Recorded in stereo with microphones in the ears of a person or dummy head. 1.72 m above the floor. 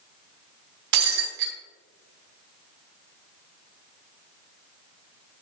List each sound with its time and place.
0.9 s breaking glass: 65° right (ahead or behind), 3.5 m